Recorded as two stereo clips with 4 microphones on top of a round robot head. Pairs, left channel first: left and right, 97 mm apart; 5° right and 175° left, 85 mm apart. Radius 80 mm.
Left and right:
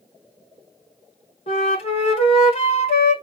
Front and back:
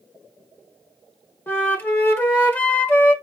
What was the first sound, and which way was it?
A flute, 60° left.